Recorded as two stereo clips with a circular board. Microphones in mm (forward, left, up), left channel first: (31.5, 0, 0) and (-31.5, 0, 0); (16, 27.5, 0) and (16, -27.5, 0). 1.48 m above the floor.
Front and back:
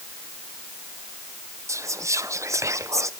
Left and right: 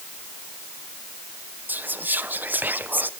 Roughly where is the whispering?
Behind right.